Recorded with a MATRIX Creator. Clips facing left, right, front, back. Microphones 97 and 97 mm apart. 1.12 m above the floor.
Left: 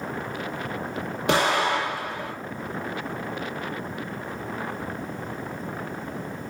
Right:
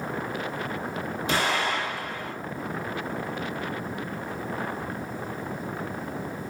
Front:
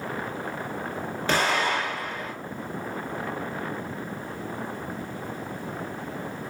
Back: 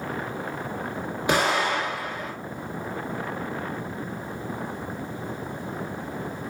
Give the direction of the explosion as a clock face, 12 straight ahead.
8 o'clock.